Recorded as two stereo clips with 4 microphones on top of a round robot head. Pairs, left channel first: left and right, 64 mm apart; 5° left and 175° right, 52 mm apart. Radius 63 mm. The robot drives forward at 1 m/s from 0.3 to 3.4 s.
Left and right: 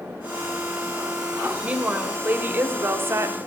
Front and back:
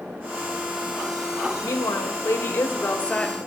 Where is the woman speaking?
20° right, 2.5 m; by 3.4 s 65° right, 1.2 m.